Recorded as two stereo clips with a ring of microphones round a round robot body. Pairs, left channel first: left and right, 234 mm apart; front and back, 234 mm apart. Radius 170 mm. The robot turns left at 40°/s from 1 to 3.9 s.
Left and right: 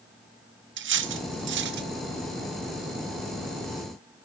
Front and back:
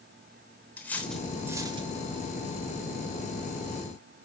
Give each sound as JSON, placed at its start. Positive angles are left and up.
{"t": 0.8, "sound": "cutlery clinking", "azimuth_deg": -80, "distance_m": 0.7}